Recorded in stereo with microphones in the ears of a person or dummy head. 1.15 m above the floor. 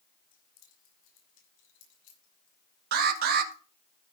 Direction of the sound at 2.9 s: 60° right (ahead or behind).